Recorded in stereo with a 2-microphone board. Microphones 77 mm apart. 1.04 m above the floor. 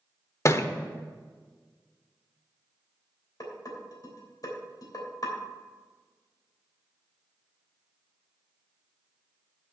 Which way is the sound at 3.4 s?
50° left (ahead or behind).